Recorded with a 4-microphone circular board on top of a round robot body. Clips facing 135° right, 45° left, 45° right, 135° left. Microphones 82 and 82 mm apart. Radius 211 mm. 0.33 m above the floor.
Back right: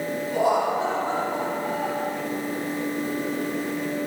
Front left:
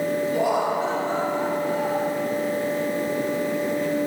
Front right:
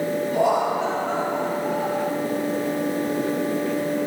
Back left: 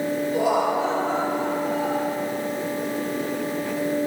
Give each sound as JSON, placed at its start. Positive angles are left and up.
{"t": 0.3, "sound": "laughter", "azimuth_deg": -65, "distance_m": 4.5}